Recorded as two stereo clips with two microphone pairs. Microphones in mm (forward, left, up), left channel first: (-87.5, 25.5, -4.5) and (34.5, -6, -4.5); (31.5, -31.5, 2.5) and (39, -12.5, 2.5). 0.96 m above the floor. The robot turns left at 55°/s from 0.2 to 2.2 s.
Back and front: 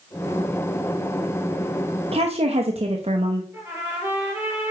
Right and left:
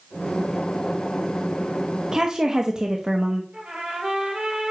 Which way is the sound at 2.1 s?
20° left.